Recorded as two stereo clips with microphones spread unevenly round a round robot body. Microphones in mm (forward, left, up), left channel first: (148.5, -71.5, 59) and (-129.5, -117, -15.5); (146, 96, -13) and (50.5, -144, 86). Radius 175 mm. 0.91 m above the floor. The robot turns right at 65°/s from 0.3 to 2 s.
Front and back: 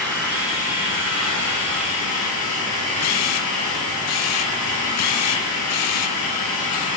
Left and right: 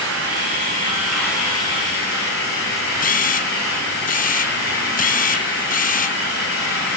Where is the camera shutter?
45° left, 0.5 m.